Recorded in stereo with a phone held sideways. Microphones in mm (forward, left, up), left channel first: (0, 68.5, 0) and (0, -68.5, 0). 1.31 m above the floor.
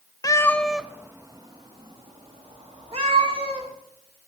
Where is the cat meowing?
25° left (ahead or behind), 0.5 m; by 3.7 s 45° right (ahead or behind), 2 m.